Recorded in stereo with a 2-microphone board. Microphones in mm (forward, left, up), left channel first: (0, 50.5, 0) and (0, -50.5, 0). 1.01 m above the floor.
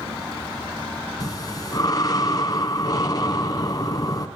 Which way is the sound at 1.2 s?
40° left (ahead or behind).